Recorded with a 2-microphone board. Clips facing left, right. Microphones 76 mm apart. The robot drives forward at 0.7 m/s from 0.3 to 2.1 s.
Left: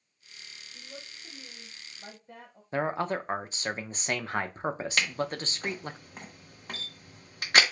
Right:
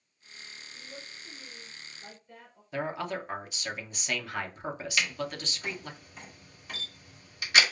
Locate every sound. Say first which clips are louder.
0.7 s a woman speaking: left 1 dB; 25° left (ahead or behind), 1.7 m; by 2.6 s 50° left (ahead or behind), 0.9 m
2.7 s a man speaking: left 4 dB; 35° left (ahead or behind), 0.5 m
5.0 s a camera shutter: even; 50° left (ahead or behind), 1.1 m